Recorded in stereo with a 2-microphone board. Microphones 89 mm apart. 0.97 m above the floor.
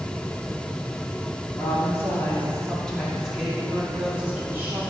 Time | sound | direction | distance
1.6 | a woman speaking | 35° left (ahead or behind) | 2.0 m